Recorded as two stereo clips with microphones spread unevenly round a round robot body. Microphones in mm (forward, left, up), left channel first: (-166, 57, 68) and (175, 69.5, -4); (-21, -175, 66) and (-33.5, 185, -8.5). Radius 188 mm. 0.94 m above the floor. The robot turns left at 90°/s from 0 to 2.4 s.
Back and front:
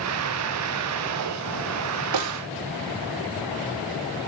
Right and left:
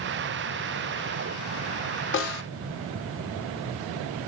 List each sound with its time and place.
2.1 s a snare drum: 40° right, 0.9 m; by 2.4 s 65° right, 0.9 m